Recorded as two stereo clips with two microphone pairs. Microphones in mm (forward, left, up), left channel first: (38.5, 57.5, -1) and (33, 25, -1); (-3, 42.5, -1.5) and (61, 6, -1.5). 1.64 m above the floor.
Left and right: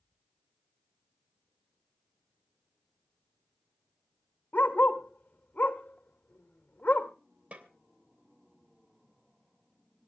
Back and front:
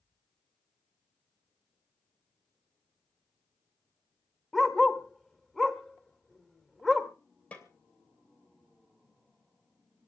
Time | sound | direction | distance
4.5 | a dog barking | 65° left | 2.5 m
7.5 | a snare drum | 140° right | 3 m